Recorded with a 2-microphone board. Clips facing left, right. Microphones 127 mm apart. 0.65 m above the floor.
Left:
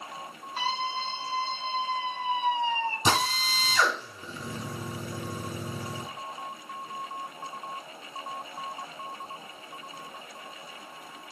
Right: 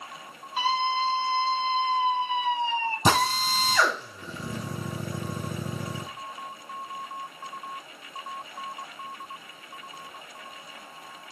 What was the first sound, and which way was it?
A scream, 5° right (ahead or behind).